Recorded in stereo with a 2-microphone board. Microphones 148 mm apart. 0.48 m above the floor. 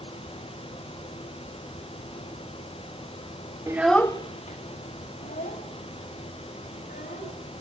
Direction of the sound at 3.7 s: 20° right (ahead or behind).